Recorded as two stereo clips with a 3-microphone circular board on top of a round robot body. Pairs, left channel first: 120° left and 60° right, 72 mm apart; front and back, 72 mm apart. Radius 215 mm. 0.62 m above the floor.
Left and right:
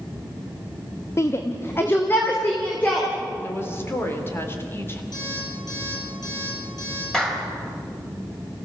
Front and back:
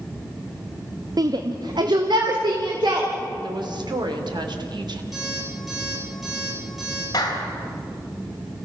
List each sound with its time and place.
1.2 s a shout: 165° left, 1.1 m; by 3.1 s 175° right, 3.5 m
3.4 s a woman speaking: 175° left, 3 m
5.1 s an alarm clock: 90° left, 8 m
7.1 s a clap: 40° left, 4 m